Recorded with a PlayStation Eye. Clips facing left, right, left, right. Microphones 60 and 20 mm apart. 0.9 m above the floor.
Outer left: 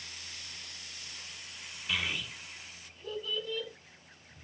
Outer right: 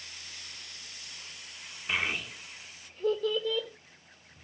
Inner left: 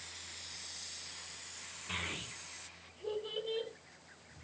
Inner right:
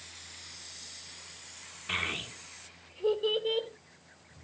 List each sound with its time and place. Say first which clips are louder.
1.9 s a child speaking: outer right 3 dB, inner right 7 dB; 30° right (ahead or behind), 1.6 m; by 3.7 s 85° right, 2.5 m